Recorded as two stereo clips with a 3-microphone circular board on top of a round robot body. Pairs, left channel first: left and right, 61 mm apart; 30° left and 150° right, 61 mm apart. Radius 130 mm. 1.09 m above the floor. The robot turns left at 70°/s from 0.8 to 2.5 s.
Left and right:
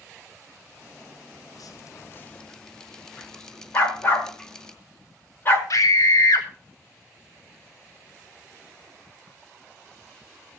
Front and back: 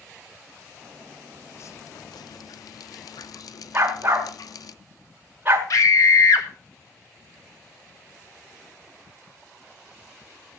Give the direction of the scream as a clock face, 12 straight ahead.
10 o'clock.